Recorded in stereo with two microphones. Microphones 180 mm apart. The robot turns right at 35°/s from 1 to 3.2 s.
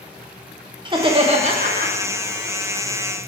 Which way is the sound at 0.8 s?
155° right.